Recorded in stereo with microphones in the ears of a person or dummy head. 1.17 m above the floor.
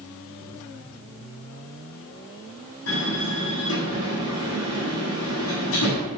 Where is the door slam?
70° left (ahead or behind), 7 m.